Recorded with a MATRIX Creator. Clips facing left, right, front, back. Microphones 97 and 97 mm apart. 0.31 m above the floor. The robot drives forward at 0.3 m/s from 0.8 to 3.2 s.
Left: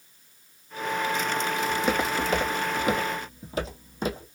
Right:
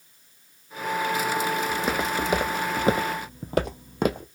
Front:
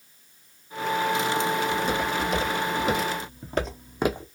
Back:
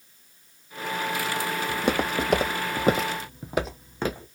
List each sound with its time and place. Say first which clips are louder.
1.7 s footsteps: left 1 dB, even; straight behind, 0.7 m; by 4.2 s 65° right, 0.8 m